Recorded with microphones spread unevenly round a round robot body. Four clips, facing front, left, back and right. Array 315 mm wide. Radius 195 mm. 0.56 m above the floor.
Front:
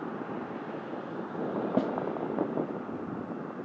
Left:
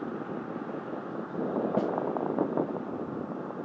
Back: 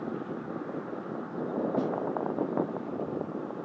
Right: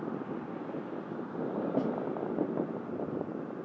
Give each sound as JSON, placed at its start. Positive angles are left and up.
{"t": 1.8, "sound": "a snare drum", "azimuth_deg": 30, "distance_m": 5.5}